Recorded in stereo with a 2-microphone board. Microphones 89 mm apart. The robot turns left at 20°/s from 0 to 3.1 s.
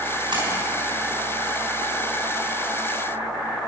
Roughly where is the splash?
Right.